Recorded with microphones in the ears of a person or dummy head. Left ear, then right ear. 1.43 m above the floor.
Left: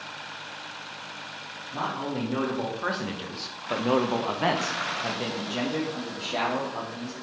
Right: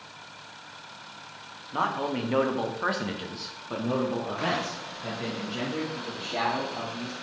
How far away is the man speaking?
About 1.5 m.